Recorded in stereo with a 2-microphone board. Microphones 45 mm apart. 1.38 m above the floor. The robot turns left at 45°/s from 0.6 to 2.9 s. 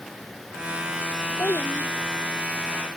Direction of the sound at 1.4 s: 70° left (ahead or behind).